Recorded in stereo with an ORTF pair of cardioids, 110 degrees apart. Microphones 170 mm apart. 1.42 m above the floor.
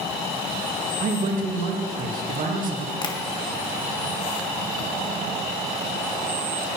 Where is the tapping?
30° left, 1.6 m.